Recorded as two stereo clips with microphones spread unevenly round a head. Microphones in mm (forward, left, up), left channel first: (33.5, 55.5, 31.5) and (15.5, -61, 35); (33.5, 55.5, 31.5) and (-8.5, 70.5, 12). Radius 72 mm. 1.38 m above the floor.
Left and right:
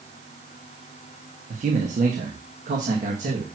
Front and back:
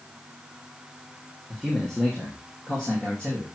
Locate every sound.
1.5 s a man speaking: 115° right, 1.7 m; by 3.5 s 95° right, 2.5 m